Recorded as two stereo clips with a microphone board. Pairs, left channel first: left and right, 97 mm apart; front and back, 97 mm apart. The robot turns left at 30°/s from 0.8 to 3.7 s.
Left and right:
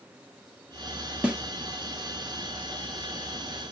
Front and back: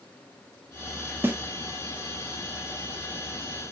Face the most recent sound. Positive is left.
turn(degrees=135)